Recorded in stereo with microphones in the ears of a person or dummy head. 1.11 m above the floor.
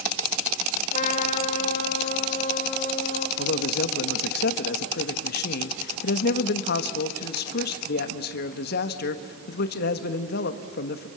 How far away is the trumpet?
About 2 m.